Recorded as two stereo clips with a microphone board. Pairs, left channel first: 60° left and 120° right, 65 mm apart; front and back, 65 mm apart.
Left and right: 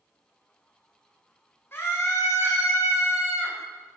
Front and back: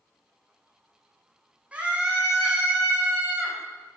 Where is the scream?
110° left, 6.5 m.